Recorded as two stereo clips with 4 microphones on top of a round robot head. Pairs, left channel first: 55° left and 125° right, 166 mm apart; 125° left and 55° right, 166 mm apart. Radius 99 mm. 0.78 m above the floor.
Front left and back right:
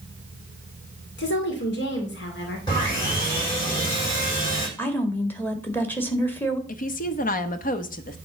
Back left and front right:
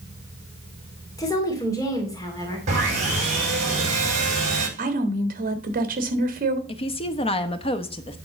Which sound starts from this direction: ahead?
Sawing, at 2.7 s.